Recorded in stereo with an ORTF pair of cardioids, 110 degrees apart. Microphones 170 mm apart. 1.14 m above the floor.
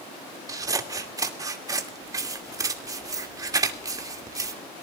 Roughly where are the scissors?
Ahead.